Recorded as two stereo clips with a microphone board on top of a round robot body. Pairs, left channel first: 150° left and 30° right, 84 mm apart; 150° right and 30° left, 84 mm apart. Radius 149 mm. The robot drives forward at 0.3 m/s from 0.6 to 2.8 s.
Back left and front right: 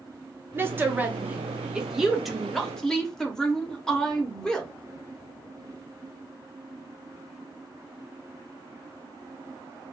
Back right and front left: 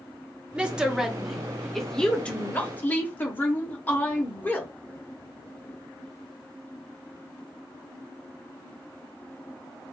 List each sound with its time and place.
0.6 s a woman speaking: 30° right, 1.1 m; by 4.7 s 140° right, 1.1 m